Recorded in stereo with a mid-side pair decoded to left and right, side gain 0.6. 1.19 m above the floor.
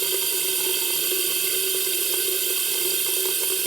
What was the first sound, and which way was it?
Running water, 30° right.